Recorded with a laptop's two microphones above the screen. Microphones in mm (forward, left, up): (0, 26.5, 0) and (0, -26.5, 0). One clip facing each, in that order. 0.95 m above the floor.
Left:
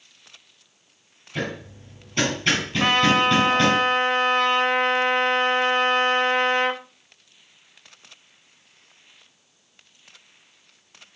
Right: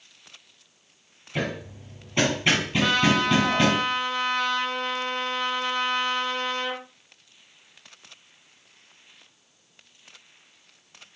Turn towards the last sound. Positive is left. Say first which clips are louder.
# left 4 dB
turn(degrees=40)  # may be behind; listen again after turning